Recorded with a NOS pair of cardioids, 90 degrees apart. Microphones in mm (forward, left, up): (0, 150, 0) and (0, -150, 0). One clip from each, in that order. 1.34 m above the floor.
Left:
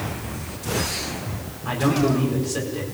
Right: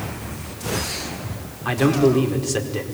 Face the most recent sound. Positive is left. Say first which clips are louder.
# right 4 dB
turn(degrees=-60)